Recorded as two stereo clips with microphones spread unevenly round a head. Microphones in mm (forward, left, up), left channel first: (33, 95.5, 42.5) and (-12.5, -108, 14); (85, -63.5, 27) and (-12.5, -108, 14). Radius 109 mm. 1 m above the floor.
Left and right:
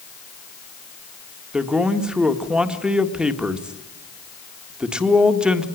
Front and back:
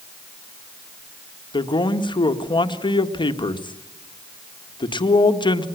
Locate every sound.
1.5 s a man speaking: 20° right, 1.8 m